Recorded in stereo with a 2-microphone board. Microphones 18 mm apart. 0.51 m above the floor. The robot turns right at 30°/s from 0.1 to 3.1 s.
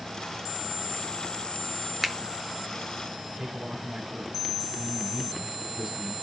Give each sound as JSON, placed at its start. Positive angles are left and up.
{"t": 2.0, "sound": "a finger snap", "side_deg": -10, "distance_m": 0.9}
{"t": 3.4, "sound": "a man speaking", "side_deg": -40, "distance_m": 3.5}